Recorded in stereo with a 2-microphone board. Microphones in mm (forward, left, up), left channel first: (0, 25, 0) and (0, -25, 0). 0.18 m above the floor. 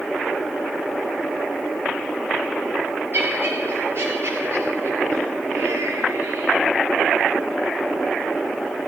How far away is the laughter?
About 4 m.